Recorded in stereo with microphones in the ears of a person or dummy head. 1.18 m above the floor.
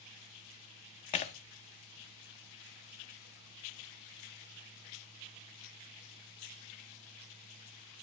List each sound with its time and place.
1.1 s breaking glass: 30° left (ahead or behind), 0.7 m